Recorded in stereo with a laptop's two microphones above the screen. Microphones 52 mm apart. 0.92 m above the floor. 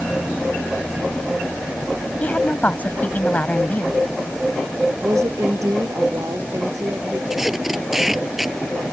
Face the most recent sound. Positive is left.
turn(degrees=-5)  # may be behind; listen again after turning